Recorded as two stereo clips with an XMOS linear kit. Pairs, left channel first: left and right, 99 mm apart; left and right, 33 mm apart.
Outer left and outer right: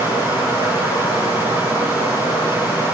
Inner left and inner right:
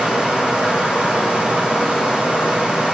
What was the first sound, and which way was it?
Running water, 35° right (ahead or behind).